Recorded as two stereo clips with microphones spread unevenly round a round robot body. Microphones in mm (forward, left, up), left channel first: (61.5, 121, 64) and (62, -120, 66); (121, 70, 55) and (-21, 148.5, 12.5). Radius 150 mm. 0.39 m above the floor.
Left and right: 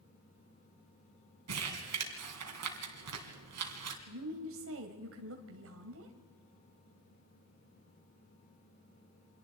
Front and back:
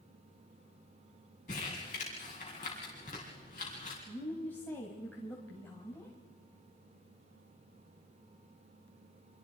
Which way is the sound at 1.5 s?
90° right.